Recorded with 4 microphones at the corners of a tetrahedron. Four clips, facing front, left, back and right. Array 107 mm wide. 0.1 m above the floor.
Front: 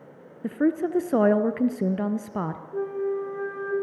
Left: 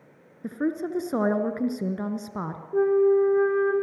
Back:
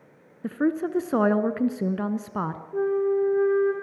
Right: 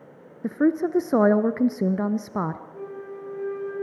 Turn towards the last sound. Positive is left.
turn(degrees=100)